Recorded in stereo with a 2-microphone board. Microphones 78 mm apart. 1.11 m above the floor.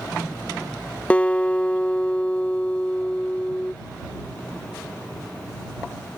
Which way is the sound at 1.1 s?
20° left (ahead or behind).